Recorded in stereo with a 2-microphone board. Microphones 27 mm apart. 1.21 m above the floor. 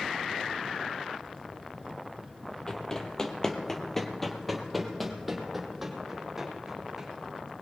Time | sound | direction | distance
2.7 | running footsteps | 25° left (ahead or behind) | 1.5 m